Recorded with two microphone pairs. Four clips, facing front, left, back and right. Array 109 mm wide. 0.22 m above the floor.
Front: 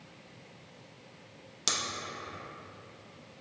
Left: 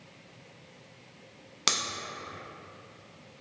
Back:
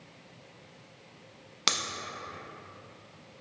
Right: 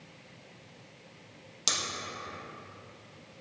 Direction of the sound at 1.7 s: 135° left.